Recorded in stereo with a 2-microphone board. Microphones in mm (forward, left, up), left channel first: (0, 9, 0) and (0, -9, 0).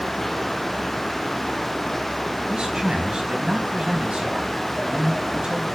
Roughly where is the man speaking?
Right.